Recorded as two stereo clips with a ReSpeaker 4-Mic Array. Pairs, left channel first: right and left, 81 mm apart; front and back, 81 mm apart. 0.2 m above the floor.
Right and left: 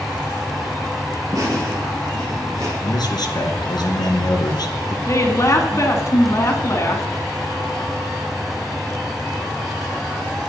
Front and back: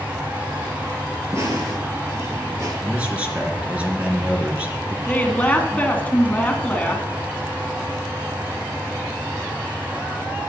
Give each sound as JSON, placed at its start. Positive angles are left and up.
{"t": 1.3, "sound": "laughter", "azimuth_deg": 125, "distance_m": 5.0}
{"t": 2.8, "sound": "a man speaking", "azimuth_deg": -110, "distance_m": 2.5}
{"t": 5.1, "sound": "a woman speaking", "azimuth_deg": -65, "distance_m": 2.0}